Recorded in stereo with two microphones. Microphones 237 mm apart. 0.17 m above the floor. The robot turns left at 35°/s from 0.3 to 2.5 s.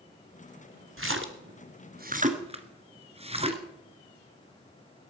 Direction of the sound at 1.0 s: 60° right (ahead or behind).